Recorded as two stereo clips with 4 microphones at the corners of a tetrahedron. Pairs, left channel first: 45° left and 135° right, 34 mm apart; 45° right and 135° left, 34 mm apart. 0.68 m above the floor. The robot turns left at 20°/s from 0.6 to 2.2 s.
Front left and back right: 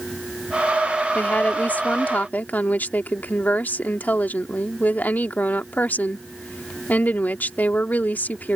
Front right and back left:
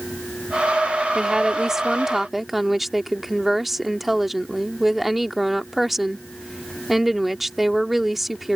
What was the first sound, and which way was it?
A woman speaking, 70° left.